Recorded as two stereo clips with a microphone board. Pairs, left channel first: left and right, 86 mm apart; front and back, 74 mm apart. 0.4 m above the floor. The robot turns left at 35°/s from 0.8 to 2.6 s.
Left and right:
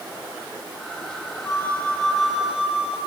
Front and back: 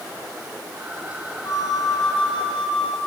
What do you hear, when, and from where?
1.4 s a flute: 30° left, 4 m; by 3.0 s 10° right, 4 m